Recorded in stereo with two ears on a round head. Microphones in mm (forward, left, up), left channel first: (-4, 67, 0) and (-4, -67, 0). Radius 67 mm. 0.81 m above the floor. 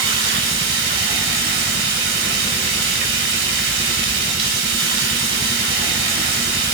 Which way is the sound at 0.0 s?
75° right (ahead or behind).